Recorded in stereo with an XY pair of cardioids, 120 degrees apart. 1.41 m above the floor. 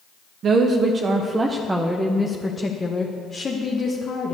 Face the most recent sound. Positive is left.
turn(degrees=40)